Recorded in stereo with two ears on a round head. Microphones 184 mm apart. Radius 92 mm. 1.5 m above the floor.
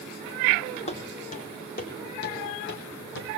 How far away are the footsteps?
About 3.5 m.